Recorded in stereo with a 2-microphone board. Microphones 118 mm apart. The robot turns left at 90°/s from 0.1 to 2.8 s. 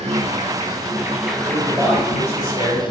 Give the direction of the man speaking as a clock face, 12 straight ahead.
5 o'clock.